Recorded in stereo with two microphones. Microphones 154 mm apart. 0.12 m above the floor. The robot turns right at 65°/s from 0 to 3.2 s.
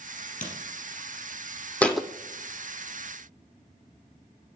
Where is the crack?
60° left (ahead or behind), 3.5 m; by 0.5 s 65° left (ahead or behind), 3.5 m.